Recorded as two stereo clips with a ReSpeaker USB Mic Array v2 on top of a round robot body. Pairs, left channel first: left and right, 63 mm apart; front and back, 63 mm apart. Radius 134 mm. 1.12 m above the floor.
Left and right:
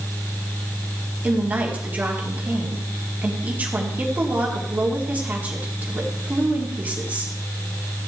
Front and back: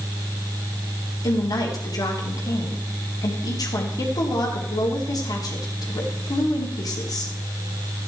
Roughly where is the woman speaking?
Ahead right.